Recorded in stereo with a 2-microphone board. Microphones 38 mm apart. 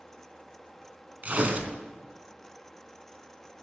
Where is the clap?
I don't hear a clap.